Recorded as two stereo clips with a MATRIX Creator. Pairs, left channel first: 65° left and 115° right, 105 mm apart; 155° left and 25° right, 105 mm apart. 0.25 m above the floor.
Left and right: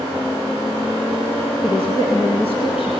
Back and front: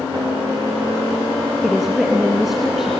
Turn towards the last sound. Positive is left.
turn(degrees=65)